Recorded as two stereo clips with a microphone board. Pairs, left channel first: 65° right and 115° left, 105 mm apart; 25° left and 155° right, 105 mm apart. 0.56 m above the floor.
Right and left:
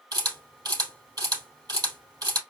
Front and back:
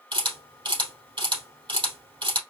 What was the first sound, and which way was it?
A camera shutter, 165° left.